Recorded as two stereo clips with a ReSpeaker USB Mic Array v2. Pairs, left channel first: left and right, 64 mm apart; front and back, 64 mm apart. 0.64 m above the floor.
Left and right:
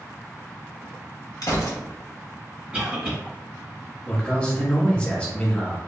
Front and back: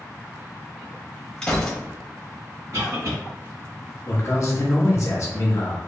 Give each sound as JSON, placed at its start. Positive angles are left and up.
{"t": 1.4, "sound": "a gunshot", "azimuth_deg": 75, "distance_m": 0.7}
{"t": 2.7, "sound": "a cough", "azimuth_deg": -160, "distance_m": 1.4}
{"t": 4.1, "sound": "a man speaking", "azimuth_deg": 20, "distance_m": 0.9}